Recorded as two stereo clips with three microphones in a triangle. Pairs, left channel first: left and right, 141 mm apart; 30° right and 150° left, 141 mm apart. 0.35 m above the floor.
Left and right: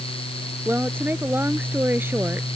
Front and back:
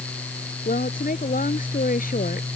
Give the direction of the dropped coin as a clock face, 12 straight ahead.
I don't hear a dropped coin.